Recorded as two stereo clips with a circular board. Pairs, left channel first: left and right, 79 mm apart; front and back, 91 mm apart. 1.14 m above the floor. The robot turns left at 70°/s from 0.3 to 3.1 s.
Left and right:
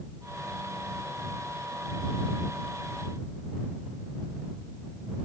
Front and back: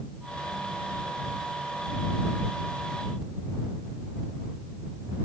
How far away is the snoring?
I don't hear snoring.